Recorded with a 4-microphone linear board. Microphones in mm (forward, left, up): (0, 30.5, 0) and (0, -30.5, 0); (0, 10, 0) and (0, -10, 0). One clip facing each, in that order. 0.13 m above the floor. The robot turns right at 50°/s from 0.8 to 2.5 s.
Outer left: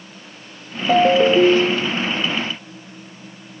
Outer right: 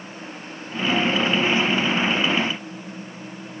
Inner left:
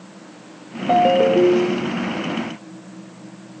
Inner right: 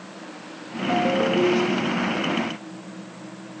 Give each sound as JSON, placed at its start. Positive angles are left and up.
{"t": 0.9, "sound": "a ringtone", "azimuth_deg": 70}